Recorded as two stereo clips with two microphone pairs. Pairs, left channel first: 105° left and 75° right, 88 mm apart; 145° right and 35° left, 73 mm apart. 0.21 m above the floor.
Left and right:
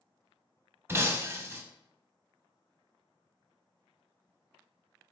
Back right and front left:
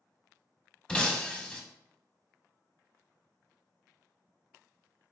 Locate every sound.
0.9 s breaking glass: 75° right, 0.5 m